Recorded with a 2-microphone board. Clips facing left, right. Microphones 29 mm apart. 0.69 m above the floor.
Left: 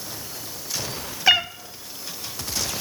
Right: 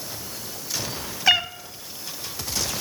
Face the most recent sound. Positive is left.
turn(degrees=0)  # may be behind; listen again after turning